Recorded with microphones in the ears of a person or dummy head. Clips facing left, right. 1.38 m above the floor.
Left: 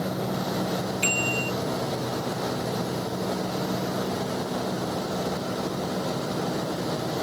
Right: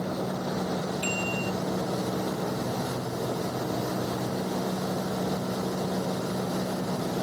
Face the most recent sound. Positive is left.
turn(degrees=30)  # may be behind; listen again after turning